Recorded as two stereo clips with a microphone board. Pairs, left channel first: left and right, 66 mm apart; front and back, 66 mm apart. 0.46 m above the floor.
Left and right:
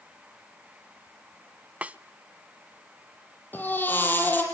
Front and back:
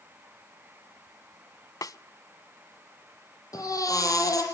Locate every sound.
1.8 s a snare drum: 20° right, 0.7 m
3.5 s a baby crying: 30° left, 7 m